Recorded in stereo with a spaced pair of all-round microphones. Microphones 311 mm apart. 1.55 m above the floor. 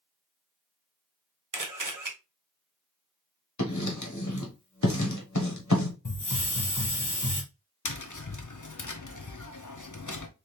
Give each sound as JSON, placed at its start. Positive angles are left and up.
{"t": 1.5, "sound": "a camera shutter", "side_deg": -85, "distance_m": 0.9}
{"t": 3.6, "sound": "writing", "side_deg": 70, "distance_m": 1.1}
{"t": 6.0, "sound": "a hiss", "side_deg": 80, "distance_m": 1.1}
{"t": 7.8, "sound": "tapping", "side_deg": 80, "distance_m": 0.7}